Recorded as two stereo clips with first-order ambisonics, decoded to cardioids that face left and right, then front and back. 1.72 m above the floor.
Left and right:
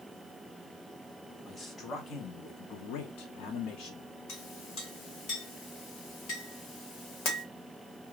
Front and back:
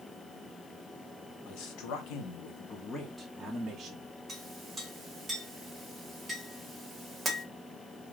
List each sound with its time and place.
1.4 s a man speaking: 15° left, 0.9 m; by 4.1 s 115° left, 0.8 m
4.3 s a clink: 95° left, 1.4 m